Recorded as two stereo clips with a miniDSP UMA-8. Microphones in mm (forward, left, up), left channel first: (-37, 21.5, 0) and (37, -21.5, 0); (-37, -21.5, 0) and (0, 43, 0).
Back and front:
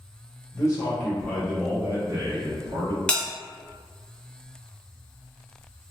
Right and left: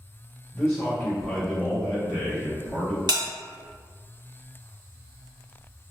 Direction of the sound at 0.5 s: 170° left.